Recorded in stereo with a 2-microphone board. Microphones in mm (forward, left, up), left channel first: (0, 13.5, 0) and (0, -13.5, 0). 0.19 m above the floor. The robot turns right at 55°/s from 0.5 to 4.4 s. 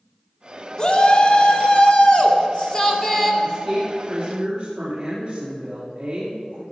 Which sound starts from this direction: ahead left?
A shout, at 0.8 s.